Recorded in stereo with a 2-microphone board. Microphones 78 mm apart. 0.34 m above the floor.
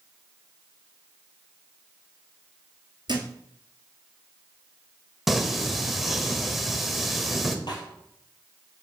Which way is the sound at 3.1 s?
70° right (ahead or behind).